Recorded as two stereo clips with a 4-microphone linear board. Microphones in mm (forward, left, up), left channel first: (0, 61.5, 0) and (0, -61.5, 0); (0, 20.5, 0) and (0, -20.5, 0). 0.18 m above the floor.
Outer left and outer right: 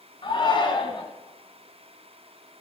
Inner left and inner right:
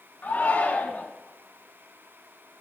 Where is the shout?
45° left (ahead or behind), 1.7 m.